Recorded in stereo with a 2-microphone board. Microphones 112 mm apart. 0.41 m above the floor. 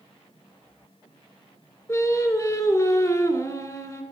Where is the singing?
30° left (ahead or behind), 2 m.